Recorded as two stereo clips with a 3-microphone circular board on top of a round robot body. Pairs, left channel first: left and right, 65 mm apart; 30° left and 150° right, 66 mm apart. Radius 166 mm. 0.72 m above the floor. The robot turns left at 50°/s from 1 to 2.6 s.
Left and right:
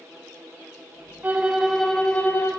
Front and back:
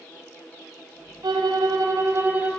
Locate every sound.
1.2 s a violin: 150° right, 0.7 m; by 2.5 s 145° left, 0.7 m